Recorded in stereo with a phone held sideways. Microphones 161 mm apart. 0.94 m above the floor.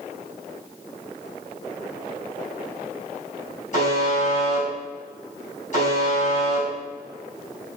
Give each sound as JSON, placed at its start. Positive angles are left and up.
{"t": 3.7, "sound": "a buzzer", "side_deg": 50, "distance_m": 5.5}